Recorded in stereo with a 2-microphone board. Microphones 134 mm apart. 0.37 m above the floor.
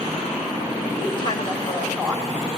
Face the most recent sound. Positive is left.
turn(degrees=0)  # may be behind; listen again after turning